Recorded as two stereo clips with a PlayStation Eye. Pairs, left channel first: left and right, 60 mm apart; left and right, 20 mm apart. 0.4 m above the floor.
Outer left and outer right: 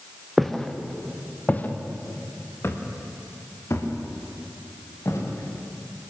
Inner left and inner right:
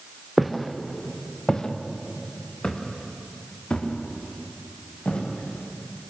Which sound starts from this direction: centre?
Footsteps, at 0.4 s.